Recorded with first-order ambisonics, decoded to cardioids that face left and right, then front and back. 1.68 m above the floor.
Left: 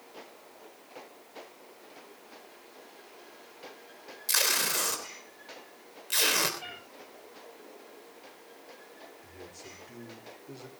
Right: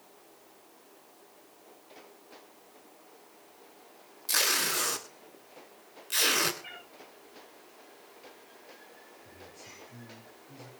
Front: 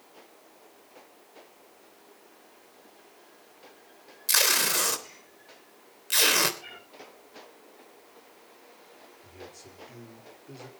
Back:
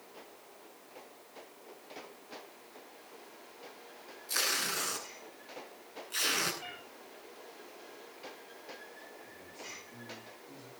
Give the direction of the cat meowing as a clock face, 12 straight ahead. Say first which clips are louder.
Left 3 dB, even; 9 o'clock.